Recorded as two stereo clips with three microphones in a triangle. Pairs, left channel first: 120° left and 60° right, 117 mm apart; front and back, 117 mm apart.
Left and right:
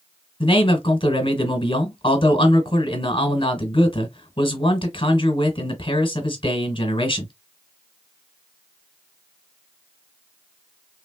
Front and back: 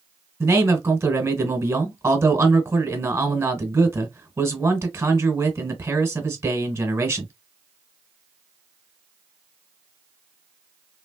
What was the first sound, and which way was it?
A man speaking, 120° left.